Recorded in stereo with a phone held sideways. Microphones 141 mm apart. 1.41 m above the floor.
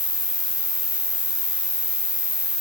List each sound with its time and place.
0.0 s an insect: 60° left (ahead or behind)